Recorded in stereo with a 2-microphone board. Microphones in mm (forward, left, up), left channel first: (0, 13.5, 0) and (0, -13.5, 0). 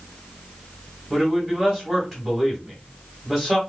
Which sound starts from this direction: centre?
A man speaking, at 1.1 s.